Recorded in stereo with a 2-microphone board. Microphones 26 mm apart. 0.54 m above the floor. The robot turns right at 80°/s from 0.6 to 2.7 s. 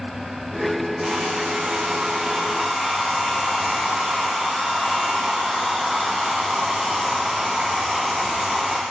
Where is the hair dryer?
145° right, 8 m; by 8.8 s 10° right, 8 m.